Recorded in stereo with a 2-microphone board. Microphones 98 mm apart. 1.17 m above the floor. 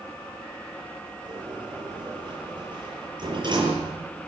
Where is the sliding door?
50° right (ahead or behind), 7 m.